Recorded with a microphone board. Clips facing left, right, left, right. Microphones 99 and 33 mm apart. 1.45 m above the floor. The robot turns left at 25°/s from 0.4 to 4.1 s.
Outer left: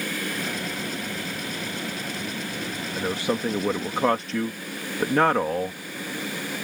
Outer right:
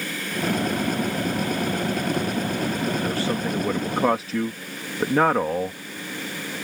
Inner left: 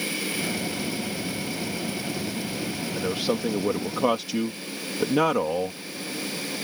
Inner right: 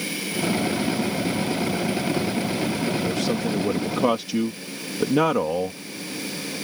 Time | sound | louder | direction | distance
3.0 | a man speaking | outer right 1 dB, inner right 2 dB | 25° left (ahead or behind) | ?